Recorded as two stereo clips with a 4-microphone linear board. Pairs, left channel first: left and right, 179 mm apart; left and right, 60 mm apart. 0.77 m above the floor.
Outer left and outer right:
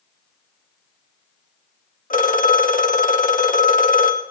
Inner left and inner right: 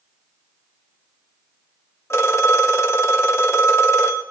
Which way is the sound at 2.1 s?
50° left (ahead or behind).